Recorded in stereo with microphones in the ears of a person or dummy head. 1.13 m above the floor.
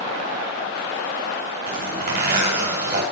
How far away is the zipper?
About 3.5 m.